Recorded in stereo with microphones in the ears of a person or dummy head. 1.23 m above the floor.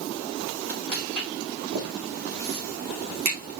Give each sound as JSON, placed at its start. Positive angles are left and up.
{"t": 0.9, "sound": "footsteps", "side_deg": -75, "distance_m": 4.0}